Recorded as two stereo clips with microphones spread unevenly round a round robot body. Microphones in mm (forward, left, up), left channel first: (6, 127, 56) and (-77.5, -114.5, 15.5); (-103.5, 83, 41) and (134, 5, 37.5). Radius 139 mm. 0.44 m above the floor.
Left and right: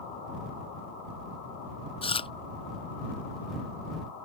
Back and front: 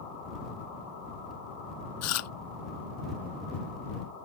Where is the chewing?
140° left.